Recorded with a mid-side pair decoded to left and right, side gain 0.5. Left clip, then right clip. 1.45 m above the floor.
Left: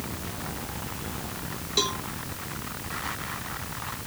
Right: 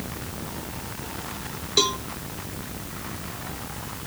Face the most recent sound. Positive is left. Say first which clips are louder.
# right 5 dB
turn(degrees=-30)